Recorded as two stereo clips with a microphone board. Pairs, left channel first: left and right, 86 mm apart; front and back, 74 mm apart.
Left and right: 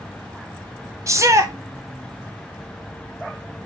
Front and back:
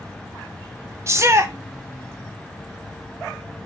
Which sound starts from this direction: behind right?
A shout, at 1.1 s.